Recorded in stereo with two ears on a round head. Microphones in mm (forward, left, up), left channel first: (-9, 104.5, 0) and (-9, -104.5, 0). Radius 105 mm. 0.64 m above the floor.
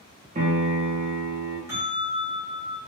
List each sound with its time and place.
0.3 s a piano: 30° right (ahead or behind), 0.7 m
1.7 s a bell: 15° right (ahead or behind), 1.2 m